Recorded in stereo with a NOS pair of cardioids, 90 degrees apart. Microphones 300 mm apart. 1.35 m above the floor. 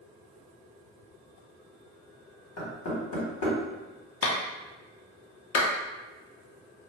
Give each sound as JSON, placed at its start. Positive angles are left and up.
{"t": 2.6, "sound": "knocking", "azimuth_deg": 60, "distance_m": 1.2}
{"t": 4.2, "sound": "a clap", "azimuth_deg": 50, "distance_m": 0.7}